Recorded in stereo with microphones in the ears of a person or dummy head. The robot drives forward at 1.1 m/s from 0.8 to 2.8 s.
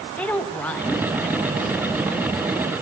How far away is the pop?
I don't hear a pop.